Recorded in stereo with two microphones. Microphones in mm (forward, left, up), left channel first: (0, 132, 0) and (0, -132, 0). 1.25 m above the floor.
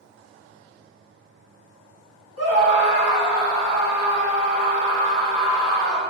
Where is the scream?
65° left (ahead or behind), 3 m.